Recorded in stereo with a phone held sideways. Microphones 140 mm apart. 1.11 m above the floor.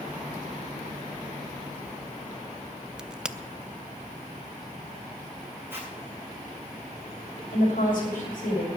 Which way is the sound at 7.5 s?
75° left (ahead or behind).